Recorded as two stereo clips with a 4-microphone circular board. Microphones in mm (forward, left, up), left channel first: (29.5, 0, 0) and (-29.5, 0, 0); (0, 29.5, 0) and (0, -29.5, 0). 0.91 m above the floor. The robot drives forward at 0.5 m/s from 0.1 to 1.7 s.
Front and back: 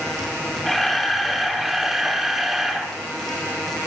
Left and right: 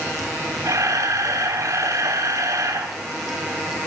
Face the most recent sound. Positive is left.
turn(degrees=-95)